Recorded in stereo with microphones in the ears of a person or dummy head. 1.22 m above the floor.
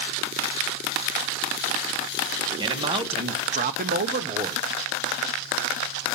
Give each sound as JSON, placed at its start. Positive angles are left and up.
{"t": 2.6, "sound": "a man speaking", "side_deg": -20, "distance_m": 1.2}